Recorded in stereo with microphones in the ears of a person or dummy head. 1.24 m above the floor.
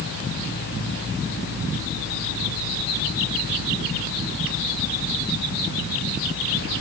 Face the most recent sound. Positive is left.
No sound to turn to.